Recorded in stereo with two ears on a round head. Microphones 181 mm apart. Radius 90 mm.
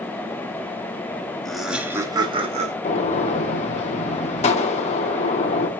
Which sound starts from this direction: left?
A gunshot, at 2.8 s.